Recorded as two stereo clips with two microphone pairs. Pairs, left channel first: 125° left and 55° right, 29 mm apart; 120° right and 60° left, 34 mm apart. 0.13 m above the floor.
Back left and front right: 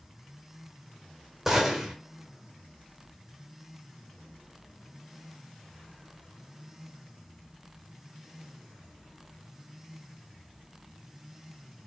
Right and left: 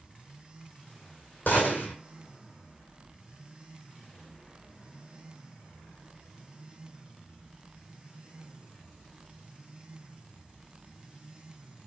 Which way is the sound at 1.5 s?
135° right.